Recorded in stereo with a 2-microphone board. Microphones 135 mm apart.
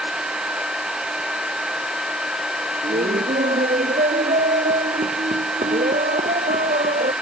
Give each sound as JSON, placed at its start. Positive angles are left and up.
{"t": 2.8, "sound": "laughter", "side_deg": -65}